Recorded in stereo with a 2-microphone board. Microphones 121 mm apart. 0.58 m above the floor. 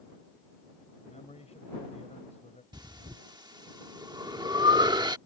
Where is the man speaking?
75° left (ahead or behind).